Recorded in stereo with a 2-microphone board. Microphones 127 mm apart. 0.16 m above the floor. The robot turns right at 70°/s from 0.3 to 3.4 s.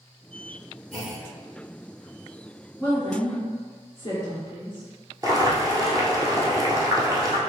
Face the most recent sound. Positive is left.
turn(degrees=-30)  # may be behind; listen again after turning